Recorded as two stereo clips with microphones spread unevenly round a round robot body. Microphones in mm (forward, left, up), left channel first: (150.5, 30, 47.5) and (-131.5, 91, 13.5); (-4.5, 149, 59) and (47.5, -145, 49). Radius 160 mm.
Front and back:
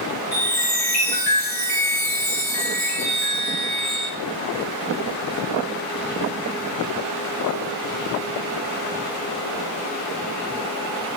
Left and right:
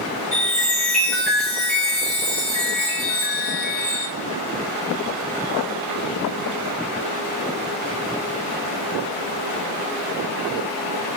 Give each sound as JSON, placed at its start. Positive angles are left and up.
{"t": 0.3, "sound": "a chime", "azimuth_deg": 15, "distance_m": 2.0}